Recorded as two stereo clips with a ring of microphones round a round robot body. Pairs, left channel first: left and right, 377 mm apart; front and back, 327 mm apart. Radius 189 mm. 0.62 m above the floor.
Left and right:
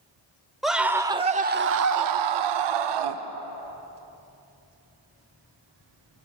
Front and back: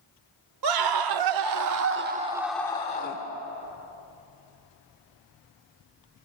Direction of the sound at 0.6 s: Straight behind.